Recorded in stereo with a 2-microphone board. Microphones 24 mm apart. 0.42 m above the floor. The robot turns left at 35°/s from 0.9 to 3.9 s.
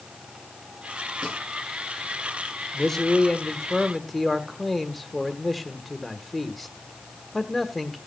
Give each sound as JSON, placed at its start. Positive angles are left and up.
{"t": 1.2, "sound": "a snare drum", "side_deg": -45, "distance_m": 8.5}
{"t": 2.7, "sound": "a man speaking", "side_deg": 15, "distance_m": 1.0}